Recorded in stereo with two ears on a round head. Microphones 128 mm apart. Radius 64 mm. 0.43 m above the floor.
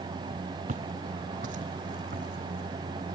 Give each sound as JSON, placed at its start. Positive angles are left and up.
{"t": 0.7, "sound": "footsteps", "side_deg": -60, "distance_m": 0.7}